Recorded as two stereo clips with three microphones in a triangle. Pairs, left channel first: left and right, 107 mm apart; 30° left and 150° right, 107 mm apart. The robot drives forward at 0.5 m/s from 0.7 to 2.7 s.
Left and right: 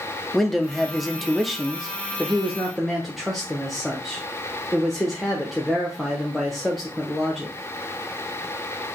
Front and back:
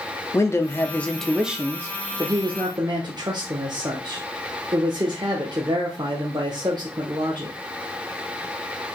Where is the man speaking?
Straight ahead, 0.7 m; by 7.6 s straight behind, 0.9 m.